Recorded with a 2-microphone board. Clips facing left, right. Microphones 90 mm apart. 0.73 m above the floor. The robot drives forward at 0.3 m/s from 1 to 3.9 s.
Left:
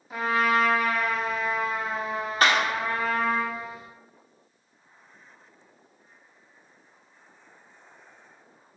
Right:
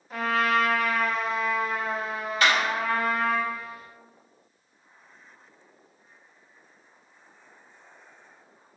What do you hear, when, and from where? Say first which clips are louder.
0.1 s a trumpet: left 1 dB; 5° left (ahead or behind), 1.4 m
2.4 s a clap: left 1 dB; 40° left (ahead or behind), 1.3 m